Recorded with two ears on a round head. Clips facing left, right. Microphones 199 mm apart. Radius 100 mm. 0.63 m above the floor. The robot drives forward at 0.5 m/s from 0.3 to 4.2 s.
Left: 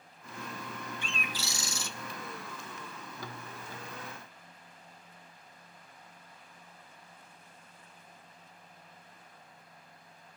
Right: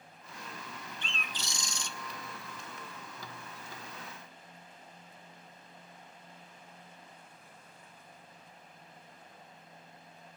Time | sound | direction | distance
1.0 | a bird | 10° left (ahead or behind) | 0.7 m